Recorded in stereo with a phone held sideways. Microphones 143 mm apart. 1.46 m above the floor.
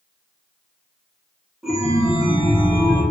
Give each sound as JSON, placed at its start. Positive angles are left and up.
{"t": 1.6, "sound": "a chime", "side_deg": -5, "distance_m": 0.6}